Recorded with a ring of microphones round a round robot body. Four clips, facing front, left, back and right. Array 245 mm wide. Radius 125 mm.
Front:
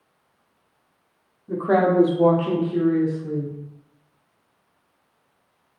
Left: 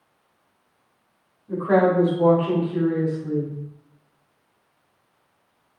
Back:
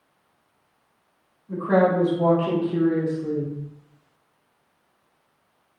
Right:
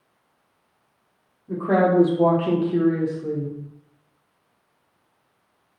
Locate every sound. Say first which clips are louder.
1.5 s a woman speaking: left 1 dB, front 1 dB; 25° right, 1.5 m; by 3.5 s 135° right, 1.7 m